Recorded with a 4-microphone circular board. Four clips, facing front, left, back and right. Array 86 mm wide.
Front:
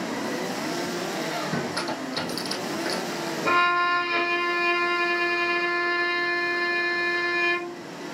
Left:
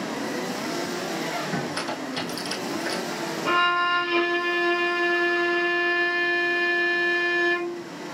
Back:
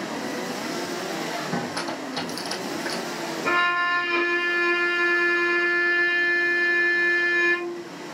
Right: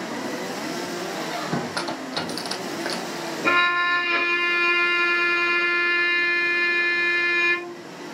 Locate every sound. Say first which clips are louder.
1.1 s a squeak: right 1 dB, even; 100° right, 1.7 m
3.4 s a violin: right 2 dB, front 1 dB; 100° right, 1.6 m